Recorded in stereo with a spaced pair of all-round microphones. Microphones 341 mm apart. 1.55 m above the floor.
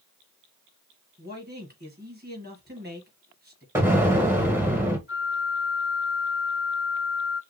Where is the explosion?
5° right (ahead or behind), 1.3 m.